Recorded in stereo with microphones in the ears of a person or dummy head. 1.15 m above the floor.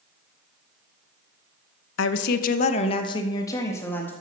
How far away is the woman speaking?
About 0.8 m.